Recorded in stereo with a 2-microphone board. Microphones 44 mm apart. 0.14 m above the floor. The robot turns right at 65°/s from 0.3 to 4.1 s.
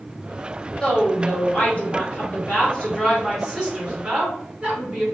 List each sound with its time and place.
0.8 s a woman speaking: 15° left, 1.9 m; by 5.0 s 130° right, 1.9 m